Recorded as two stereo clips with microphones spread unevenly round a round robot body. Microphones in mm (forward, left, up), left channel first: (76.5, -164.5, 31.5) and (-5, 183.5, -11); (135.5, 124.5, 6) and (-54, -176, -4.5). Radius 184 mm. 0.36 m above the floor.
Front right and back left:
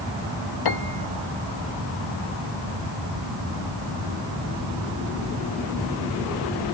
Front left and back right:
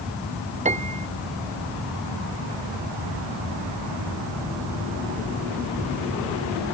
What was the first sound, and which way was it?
A piano, 50° right.